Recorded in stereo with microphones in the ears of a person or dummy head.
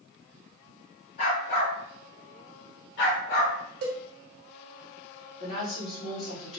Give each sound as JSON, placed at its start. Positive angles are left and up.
{"t": 1.2, "sound": "a dog barking", "side_deg": 55, "distance_m": 1.8}
{"t": 3.8, "sound": "a cowbell", "side_deg": -60, "distance_m": 0.8}
{"t": 5.4, "sound": "a woman speaking", "side_deg": 40, "distance_m": 1.6}